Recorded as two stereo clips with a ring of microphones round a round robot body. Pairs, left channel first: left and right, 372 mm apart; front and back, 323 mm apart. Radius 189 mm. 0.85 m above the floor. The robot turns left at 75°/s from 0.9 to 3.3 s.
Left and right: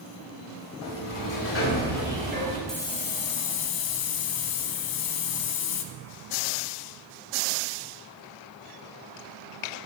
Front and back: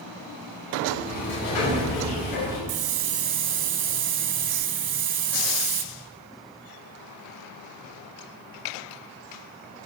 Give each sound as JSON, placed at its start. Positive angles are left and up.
{"t": 0.8, "sound": "a sliding door", "azimuth_deg": 80, "distance_m": 6.0}
{"t": 2.7, "sound": "a hiss", "azimuth_deg": 180, "distance_m": 1.1}